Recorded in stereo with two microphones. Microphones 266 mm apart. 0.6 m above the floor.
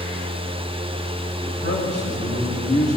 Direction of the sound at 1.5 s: 70° left (ahead or behind).